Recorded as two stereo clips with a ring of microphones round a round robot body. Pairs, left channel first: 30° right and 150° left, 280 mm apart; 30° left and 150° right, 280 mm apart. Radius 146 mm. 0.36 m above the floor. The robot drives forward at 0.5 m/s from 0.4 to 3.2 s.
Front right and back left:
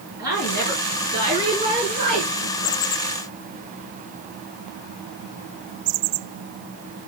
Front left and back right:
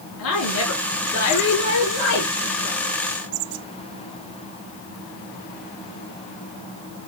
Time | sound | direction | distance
0.2 | a woman speaking | 75° left | 5.5 m